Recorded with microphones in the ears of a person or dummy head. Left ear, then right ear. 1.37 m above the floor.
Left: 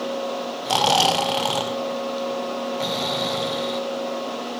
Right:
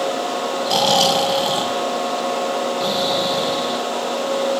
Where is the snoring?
50° left (ahead or behind), 2.5 m.